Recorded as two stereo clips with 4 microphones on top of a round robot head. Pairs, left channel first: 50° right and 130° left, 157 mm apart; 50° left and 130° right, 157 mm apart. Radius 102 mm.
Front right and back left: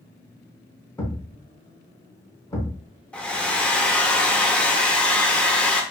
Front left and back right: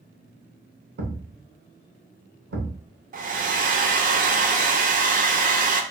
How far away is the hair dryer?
About 0.5 m.